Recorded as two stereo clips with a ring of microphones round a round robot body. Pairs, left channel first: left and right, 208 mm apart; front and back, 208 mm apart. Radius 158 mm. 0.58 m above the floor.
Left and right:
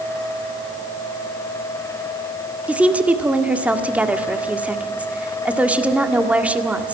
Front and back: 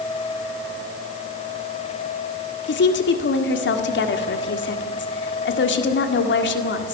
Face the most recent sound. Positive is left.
turn(degrees=-5)